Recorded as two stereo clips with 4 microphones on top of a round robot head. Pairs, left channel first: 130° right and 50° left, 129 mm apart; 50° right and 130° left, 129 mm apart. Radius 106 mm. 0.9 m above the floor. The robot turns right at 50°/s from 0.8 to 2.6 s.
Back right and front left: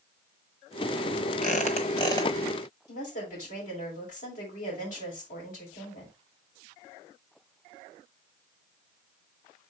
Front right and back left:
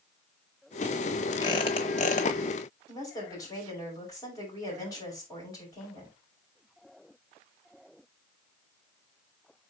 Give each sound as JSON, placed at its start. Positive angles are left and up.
{"t": 1.4, "sound": "a squeak", "azimuth_deg": -105, "distance_m": 1.0}
{"t": 2.9, "sound": "a woman speaking", "azimuth_deg": -110, "distance_m": 5.5}